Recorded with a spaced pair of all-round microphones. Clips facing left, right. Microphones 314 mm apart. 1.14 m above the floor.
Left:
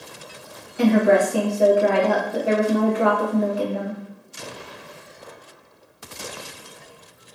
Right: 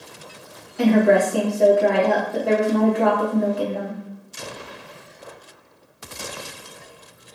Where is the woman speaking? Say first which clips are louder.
Right 1 dB; 5° left (ahead or behind), 1.2 m.